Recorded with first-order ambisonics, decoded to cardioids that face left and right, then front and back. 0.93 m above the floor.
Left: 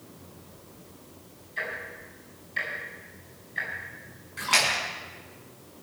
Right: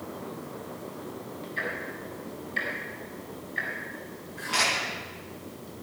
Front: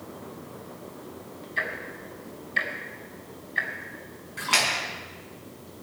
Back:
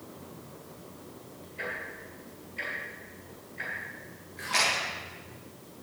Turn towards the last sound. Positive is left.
turn(degrees=40)